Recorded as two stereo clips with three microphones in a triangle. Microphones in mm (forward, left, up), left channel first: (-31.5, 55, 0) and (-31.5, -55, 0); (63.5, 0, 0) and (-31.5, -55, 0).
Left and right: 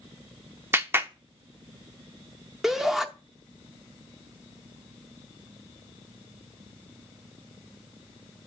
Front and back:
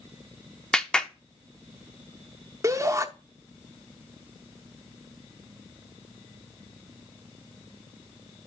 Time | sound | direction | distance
0.7 | a clap | 45° right | 0.7 m
2.6 | a shout | 175° right | 0.7 m